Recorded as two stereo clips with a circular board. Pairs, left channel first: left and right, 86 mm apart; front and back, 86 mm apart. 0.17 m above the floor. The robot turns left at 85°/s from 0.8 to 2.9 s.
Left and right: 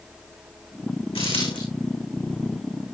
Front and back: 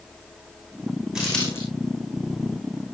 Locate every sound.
1.1 s a dropped coin: 95° left, 5.5 m; by 1.6 s 60° left, 5.5 m